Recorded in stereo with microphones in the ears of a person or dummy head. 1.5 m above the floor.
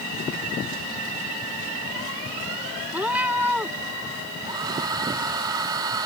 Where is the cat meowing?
5° right (ahead or behind).